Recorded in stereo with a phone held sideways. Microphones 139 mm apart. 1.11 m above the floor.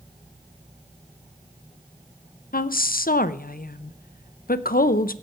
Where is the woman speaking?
75° left (ahead or behind), 0.6 m.